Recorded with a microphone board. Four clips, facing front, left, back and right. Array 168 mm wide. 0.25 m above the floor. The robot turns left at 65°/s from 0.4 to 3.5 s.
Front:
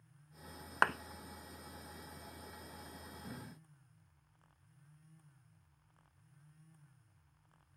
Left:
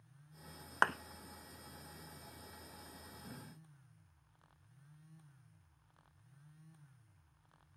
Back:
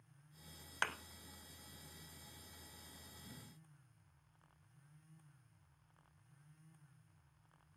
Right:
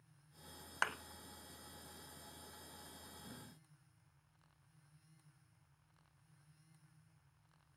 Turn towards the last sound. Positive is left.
turn(degrees=-135)